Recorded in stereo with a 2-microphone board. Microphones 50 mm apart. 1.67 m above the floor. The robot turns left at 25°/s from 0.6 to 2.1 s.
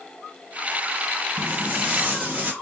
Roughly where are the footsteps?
Right.